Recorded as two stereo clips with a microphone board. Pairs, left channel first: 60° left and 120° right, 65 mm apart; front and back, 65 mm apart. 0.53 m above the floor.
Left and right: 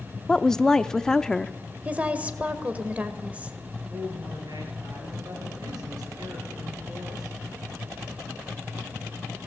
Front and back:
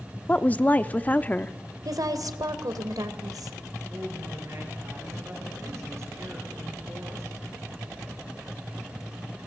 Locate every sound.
0.3 s a woman speaking: 10° right, 0.7 m
1.9 s a woman speaking: 175° left, 2 m
3.9 s a woman speaking: 135° right, 9 m